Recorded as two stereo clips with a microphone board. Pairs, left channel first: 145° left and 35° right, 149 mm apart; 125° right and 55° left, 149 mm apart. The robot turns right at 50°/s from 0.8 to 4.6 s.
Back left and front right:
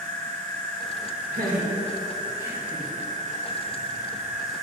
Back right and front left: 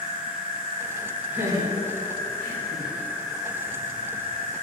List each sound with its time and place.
0.0 s an insect: 130° right, 2 m; by 4.6 s 60° left, 2 m
1.3 s laughter: 20° right, 2 m; by 2.9 s 60° left, 2 m